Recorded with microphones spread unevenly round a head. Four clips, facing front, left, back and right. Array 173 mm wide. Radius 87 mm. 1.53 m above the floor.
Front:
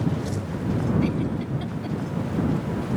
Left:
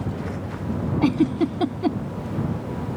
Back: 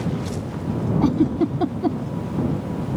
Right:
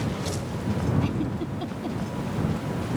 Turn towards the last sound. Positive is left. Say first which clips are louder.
# left 9 dB, back 7 dB
turn(degrees=145)